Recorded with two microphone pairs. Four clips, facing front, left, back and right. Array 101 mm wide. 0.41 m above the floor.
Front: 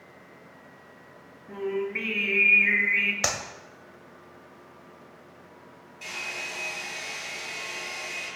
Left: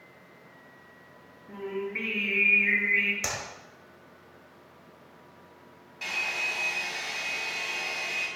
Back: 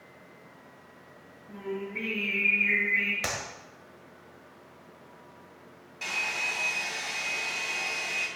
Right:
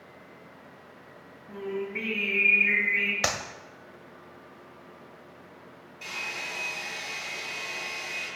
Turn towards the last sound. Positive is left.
turn(degrees=140)